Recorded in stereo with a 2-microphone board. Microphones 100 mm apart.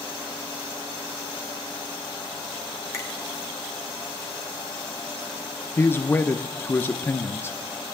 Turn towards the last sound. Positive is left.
turn(degrees=20)  # may be behind; listen again after turning